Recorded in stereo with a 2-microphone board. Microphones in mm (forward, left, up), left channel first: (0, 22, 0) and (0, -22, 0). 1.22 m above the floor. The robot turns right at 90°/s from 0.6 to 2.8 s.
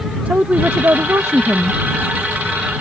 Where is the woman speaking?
135° right; by 1.8 s 25° right.